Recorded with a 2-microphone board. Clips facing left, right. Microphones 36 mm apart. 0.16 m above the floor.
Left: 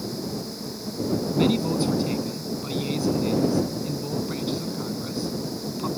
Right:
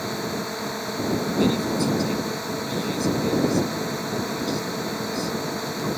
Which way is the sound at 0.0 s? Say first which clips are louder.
Right 3 dB; 60° right (ahead or behind).